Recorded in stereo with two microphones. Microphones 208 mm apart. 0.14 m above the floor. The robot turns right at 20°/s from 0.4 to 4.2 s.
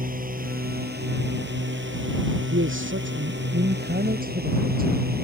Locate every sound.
0.0 s a drone: 130° right; by 5.2 s 55° right
2.5 s a man speaking: 80° right; by 5.2 s 45° right